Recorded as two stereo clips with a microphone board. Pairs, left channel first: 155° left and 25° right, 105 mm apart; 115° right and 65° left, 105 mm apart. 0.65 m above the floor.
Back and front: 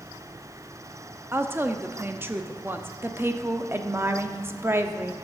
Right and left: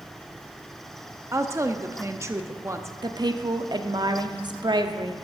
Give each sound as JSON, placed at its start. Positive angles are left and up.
{"t": 1.3, "sound": "a woman speaking", "azimuth_deg": 30, "distance_m": 0.6}
{"t": 3.0, "sound": "a woman speaking", "azimuth_deg": 40, "distance_m": 0.8}